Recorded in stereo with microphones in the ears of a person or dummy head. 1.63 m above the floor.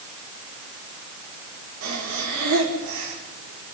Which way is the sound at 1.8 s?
70° right (ahead or behind).